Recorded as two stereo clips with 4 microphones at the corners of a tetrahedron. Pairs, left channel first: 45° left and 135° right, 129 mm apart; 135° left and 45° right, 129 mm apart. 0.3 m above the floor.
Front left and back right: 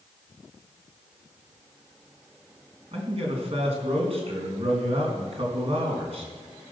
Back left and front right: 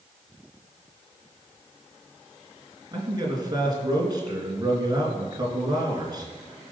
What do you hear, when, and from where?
2.9 s a man speaking: 100° right, 3.5 m